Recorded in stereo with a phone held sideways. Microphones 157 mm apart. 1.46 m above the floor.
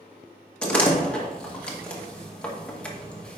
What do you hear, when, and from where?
0.6 s a door slam: 5° left (ahead or behind), 1.2 m